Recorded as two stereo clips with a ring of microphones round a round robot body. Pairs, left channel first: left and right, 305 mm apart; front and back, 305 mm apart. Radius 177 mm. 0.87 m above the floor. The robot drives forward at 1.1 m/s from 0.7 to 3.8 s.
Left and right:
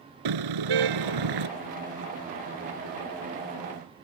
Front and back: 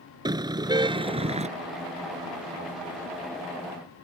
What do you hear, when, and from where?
0.2 s a car horn: 105° right; by 1.5 s 110° right